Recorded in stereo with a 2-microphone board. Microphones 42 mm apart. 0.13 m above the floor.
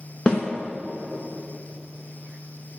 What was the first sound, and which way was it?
A snare drum, 25° left (ahead or behind).